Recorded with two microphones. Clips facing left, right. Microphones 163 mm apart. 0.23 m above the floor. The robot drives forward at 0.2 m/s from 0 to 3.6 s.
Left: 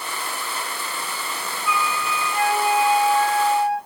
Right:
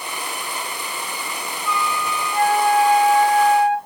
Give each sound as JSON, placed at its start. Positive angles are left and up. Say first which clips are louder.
{"t": 1.6, "sound": "a flute", "louder": "right 1 dB", "side_deg": 5, "distance_m": 1.6}